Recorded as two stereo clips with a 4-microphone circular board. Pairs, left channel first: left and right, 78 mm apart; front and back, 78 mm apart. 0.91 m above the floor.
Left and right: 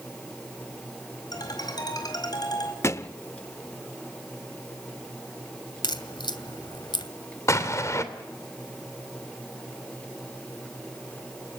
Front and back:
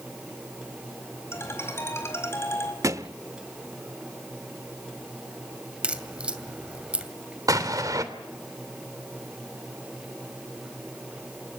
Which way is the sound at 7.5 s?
140° left.